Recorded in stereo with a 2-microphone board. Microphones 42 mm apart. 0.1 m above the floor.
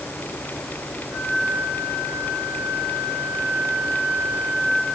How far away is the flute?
About 9 m.